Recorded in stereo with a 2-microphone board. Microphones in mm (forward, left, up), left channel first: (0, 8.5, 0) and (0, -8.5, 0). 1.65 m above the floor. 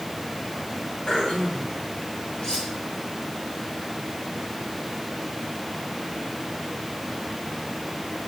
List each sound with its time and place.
1.1 s throat clearing: 55° left (ahead or behind), 7.5 m
2.4 s cutlery clinking: 50° left (ahead or behind), 7 m